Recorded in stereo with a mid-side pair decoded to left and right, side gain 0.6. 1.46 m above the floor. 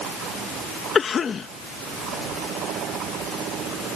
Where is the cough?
35° left.